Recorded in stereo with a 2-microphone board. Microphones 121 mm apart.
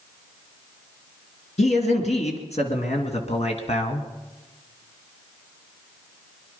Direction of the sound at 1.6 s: 65° left (ahead or behind).